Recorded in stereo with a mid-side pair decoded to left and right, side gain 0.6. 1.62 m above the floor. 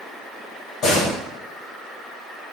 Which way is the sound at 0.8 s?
65° left.